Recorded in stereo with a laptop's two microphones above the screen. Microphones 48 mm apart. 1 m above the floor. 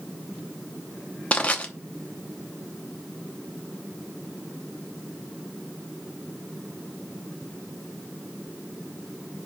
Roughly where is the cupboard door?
I don't hear a cupboard door.